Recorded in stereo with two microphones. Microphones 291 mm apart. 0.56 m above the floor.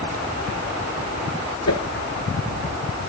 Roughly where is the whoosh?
Left.